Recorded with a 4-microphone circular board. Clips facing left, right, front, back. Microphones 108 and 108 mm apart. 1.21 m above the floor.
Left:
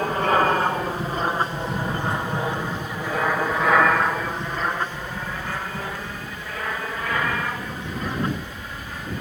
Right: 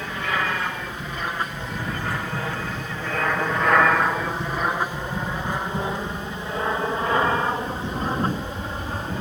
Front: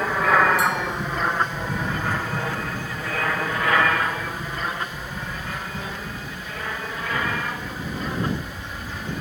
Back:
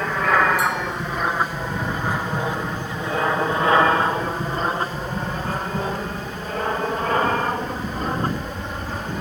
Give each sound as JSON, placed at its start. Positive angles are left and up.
{"t": 0.0, "sound": "an aircraft", "azimuth_deg": 85}